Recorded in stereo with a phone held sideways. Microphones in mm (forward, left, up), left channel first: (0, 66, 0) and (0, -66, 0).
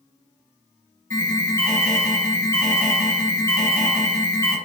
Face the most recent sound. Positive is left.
turn(degrees=25)  # may be behind; listen again after turning